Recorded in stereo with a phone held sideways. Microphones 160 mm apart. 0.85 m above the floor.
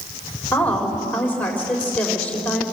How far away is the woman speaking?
About 3.5 m.